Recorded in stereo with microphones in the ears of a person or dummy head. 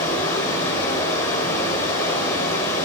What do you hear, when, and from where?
0.0 s running water: 25° left (ahead or behind), 3.5 m